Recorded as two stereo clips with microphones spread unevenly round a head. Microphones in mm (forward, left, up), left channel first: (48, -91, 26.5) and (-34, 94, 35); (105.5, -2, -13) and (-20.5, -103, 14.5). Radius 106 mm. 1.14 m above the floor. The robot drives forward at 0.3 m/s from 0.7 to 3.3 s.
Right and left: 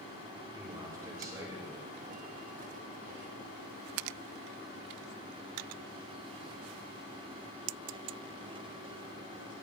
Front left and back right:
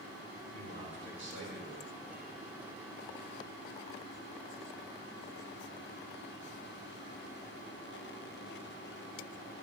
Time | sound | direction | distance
0.5 | a man speaking | 170° right | 4.5 m